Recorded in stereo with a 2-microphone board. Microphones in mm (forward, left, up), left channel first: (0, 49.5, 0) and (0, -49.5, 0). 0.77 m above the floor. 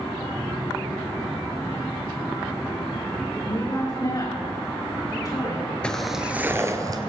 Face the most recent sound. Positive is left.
turn(degrees=-40)  # may be behind; listen again after turning